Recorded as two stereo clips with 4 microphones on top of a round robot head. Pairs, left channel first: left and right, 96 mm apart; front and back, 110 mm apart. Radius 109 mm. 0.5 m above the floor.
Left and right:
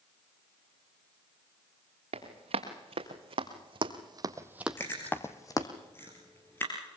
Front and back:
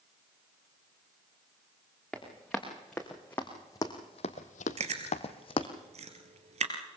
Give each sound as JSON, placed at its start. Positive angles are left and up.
{"t": 2.1, "sound": "running footsteps", "azimuth_deg": -85, "distance_m": 3.5}
{"t": 4.8, "sound": "chewing", "azimuth_deg": 160, "distance_m": 2.5}